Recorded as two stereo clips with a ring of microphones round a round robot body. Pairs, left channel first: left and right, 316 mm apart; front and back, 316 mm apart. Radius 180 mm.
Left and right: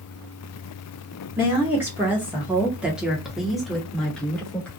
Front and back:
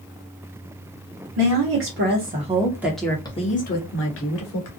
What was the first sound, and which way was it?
A woman speaking, 170° right.